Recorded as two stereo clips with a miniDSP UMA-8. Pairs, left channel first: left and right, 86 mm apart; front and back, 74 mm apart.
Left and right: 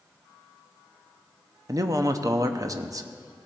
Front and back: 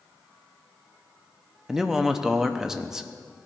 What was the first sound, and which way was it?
A man speaking, 100° right.